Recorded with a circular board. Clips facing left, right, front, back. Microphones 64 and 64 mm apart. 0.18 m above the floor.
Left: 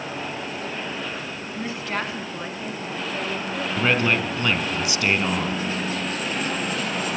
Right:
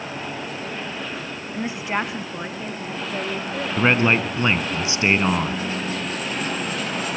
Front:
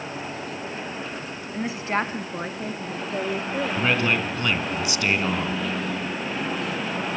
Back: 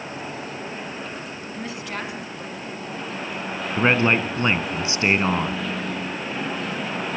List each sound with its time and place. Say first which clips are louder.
1.5 s a woman speaking: right 3 dB, front 7 dB; 50° right, 1.1 m; by 3.8 s 15° right, 3.5 m
3.8 s a man speaking: right 3 dB, back 6 dB; 140° right, 2 m